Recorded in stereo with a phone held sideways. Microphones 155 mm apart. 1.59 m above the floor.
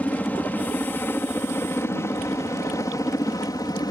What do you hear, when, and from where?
0.0 s a helicopter: 10° left (ahead or behind); by 3.9 s 25° left (ahead or behind)